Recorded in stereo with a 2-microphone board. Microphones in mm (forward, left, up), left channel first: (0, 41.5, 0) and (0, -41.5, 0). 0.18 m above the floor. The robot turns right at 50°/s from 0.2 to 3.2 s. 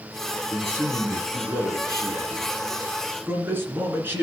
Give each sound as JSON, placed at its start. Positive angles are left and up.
{"t": 0.5, "sound": "a man speaking", "azimuth_deg": -165, "distance_m": 2.5}